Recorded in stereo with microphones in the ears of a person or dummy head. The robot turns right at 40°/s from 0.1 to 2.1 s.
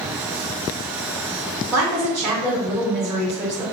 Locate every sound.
1.7 s a woman speaking: 10° right (ahead or behind), 1.8 m; by 3.7 s 5° left (ahead or behind), 1.8 m